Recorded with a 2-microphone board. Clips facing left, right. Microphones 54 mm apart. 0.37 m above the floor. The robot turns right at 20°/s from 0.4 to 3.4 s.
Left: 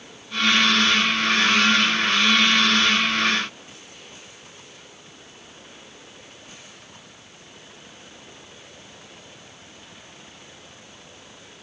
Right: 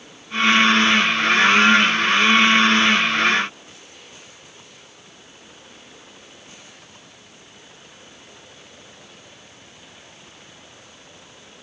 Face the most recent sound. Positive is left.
No sound to turn to.